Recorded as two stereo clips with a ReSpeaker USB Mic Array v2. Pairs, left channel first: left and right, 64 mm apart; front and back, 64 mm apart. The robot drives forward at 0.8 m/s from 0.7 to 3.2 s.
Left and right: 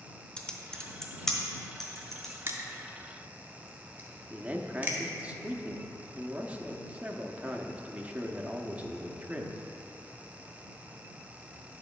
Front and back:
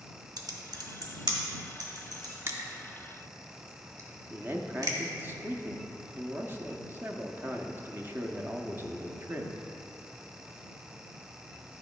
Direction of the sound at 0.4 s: 165° left.